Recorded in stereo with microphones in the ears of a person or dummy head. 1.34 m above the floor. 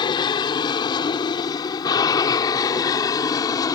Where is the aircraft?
20° left (ahead or behind); by 3.8 s 15° left (ahead or behind).